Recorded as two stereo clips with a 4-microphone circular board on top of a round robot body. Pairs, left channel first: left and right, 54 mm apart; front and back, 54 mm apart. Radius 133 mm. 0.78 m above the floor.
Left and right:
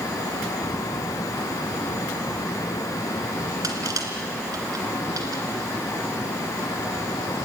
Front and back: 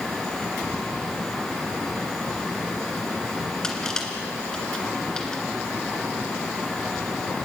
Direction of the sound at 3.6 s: 80° right.